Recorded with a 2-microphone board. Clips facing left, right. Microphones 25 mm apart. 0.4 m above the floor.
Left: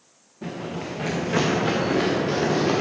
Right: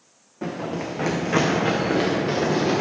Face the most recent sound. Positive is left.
turn(degrees=-15)  # may be behind; listen again after turning